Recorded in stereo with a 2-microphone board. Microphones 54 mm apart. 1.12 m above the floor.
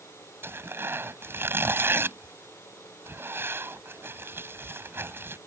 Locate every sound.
0.4 s tearing paper: 45° right (ahead or behind)